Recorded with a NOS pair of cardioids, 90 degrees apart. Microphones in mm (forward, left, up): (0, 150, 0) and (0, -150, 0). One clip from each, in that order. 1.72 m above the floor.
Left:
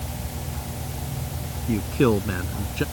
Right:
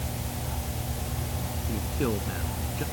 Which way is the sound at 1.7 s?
65° left.